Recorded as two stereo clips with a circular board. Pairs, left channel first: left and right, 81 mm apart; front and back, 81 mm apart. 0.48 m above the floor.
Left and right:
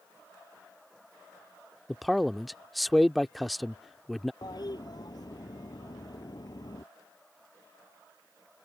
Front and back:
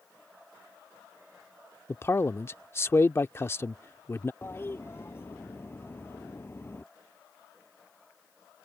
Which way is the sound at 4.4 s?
60° left.